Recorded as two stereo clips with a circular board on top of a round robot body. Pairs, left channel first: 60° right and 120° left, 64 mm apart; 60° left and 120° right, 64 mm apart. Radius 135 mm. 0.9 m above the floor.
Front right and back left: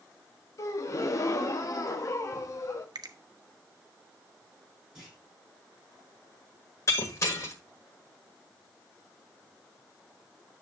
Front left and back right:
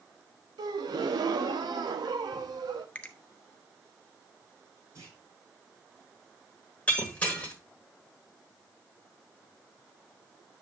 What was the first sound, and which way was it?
A gasp, 105° right.